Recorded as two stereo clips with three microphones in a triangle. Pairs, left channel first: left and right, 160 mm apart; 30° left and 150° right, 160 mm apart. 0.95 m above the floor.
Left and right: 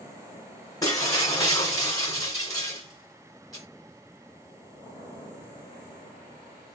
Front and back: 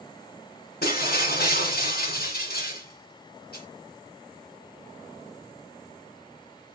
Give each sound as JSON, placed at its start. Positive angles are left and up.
{"t": 0.8, "sound": "breaking glass", "azimuth_deg": 25, "distance_m": 2.5}